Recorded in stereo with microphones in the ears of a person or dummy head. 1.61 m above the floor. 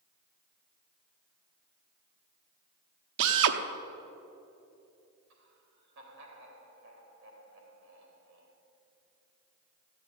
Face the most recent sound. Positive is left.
turn(degrees=-70)  # may be behind; listen again after turning